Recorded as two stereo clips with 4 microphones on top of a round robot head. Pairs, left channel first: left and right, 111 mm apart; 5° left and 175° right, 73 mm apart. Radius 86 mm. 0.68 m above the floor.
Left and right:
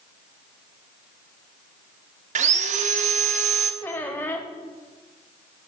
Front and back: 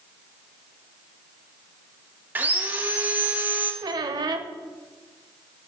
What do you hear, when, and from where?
2.4 s sawing: 105° right, 0.8 m
3.8 s a squeak: 165° left, 0.6 m